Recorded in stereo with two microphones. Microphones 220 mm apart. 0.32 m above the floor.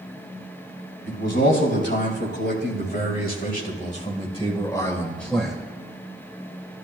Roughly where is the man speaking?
Left.